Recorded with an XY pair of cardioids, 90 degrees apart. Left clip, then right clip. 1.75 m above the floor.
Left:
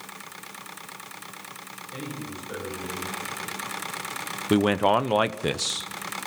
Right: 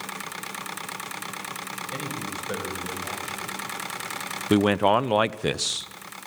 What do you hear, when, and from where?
1.9 s a man speaking: 65° right, 8.5 m
4.5 s a man speaking: 10° right, 1.0 m